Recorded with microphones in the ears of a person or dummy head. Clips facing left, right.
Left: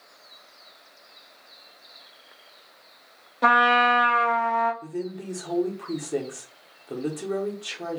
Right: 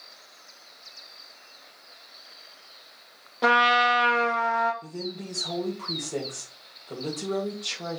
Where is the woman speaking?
15° left (ahead or behind), 1.1 m.